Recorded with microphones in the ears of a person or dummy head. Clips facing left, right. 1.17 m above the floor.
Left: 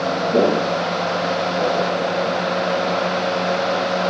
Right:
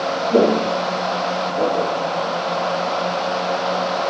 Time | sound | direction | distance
0.3 | footsteps | 20° right (ahead or behind) | 2 m